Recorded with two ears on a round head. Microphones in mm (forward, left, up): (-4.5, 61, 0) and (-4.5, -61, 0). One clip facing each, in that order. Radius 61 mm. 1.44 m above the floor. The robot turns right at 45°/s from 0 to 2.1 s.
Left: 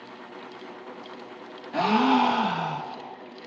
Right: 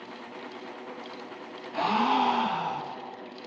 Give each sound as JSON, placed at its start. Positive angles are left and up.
{"t": 1.7, "sound": "a gasp", "side_deg": 60, "distance_m": 1.1}